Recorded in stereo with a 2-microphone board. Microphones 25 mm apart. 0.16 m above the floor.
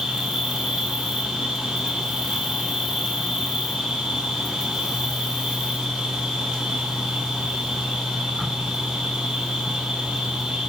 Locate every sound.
0.0 s an insect: 40° right (ahead or behind), 1.7 m